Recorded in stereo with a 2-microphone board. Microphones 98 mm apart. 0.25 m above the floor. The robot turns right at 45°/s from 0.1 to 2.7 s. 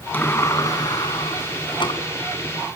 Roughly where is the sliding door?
Ahead left.